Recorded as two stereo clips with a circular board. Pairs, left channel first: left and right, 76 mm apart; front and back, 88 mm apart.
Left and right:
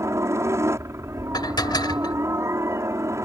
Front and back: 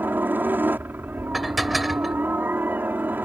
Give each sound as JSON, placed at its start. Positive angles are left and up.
{"t": 0.0, "sound": "a helicopter", "azimuth_deg": -120}
{"t": 1.3, "sound": "dishes clattering", "azimuth_deg": 90}